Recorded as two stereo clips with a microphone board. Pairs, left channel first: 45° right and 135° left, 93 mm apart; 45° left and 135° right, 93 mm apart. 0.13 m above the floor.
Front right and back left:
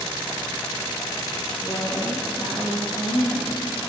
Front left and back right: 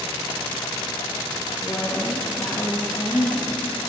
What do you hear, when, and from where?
1.6 s a woman speaking: straight ahead, 2.0 m; by 3.5 s 20° right, 3.5 m